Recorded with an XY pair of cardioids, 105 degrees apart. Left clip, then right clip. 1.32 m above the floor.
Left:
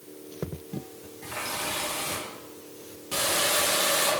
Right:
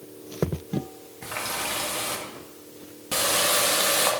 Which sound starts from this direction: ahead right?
A running tap, at 1.2 s.